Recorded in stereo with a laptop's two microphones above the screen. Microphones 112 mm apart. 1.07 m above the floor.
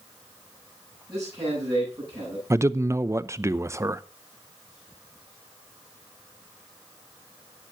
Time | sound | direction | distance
1.1 | a man speaking | 35° right (ahead or behind) | 10 m
2.5 | a man speaking | 25° right (ahead or behind) | 0.6 m